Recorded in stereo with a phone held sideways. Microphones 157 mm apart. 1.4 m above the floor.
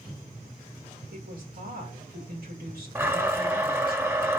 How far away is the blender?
About 1.6 m.